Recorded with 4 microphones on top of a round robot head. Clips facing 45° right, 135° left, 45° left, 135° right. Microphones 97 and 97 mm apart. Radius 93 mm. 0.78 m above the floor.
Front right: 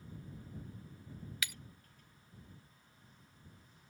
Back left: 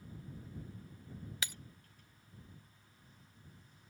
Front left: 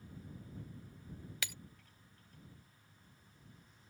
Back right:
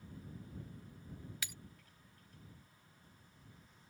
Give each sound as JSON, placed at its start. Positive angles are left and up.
{"t": 1.4, "sound": "breaking glass", "azimuth_deg": 75}